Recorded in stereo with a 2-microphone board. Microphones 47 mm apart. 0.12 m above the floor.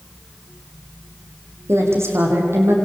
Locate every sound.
1.7 s a woman speaking: 65° right (ahead or behind), 6 m